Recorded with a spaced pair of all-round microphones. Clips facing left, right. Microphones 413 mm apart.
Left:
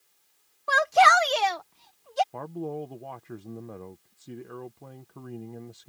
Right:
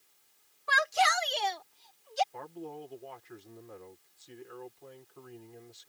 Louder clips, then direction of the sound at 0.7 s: Left 9 dB; 60° left (ahead or behind).